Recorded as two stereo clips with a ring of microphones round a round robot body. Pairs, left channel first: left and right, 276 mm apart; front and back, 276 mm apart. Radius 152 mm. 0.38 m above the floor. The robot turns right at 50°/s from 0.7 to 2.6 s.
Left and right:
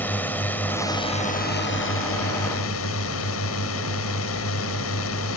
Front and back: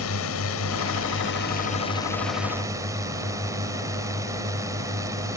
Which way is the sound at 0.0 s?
10° left.